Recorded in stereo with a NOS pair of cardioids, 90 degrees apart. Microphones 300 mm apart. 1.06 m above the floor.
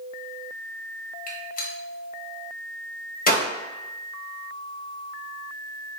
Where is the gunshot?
30° left, 0.9 m.